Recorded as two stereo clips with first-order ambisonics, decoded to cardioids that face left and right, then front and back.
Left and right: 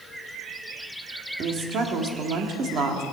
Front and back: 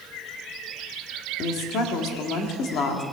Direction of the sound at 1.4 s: 40° right.